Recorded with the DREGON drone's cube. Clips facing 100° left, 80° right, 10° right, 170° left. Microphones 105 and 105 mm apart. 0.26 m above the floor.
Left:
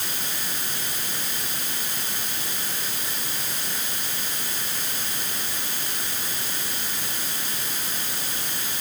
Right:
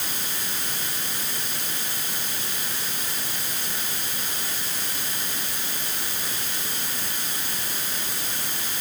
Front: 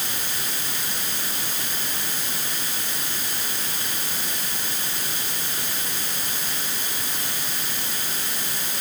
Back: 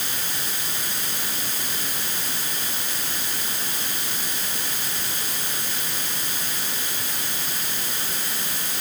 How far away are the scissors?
No scissors in this recording.